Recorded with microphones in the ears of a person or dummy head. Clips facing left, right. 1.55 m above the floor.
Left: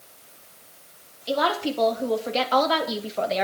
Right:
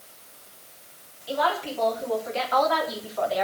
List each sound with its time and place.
1.3 s a woman speaking: 60° left (ahead or behind), 4 m; by 3.4 s 30° left (ahead or behind), 2 m